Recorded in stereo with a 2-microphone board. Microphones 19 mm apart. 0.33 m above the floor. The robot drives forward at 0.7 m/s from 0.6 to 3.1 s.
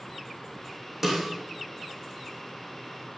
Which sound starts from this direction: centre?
A snare drum, at 1.0 s.